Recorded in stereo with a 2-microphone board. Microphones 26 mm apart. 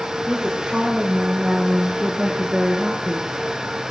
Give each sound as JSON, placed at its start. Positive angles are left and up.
{"t": 0.3, "sound": "a woman speaking", "side_deg": -25, "distance_m": 8.5}